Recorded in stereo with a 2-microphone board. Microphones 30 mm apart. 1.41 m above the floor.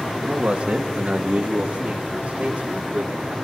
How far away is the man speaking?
About 2.5 m.